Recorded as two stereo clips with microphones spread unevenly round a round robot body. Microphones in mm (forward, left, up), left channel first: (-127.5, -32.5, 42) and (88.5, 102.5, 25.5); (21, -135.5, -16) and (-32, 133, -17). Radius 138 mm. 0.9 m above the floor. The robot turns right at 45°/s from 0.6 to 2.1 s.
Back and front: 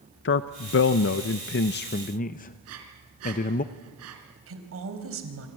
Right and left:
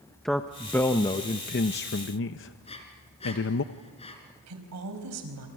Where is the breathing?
10° right, 3.5 m.